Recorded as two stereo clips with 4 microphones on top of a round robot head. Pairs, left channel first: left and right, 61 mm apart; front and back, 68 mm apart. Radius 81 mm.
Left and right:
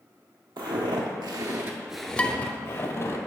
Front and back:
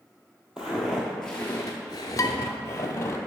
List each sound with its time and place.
0.6 s footsteps: 100° right, 1.1 m; by 3.2 s 55° left, 1.1 m
2.2 s dishes clattering: 25° left, 0.7 m